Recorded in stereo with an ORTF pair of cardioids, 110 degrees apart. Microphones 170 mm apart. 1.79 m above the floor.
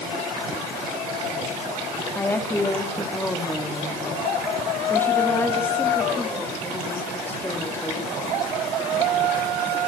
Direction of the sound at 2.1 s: 15° left.